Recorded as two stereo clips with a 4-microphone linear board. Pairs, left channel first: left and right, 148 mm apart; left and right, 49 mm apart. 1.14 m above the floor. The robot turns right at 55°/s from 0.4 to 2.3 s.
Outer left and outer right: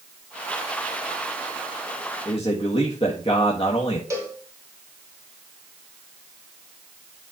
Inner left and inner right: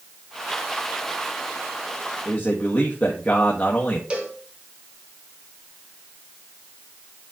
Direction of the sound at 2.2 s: 35° left (ahead or behind).